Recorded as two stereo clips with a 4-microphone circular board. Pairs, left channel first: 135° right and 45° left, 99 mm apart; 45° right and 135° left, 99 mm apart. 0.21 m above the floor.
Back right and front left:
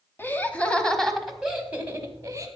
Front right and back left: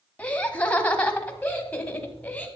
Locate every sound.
0.2 s laughter: 100° right, 1.4 m; by 2.5 s 25° left, 1.5 m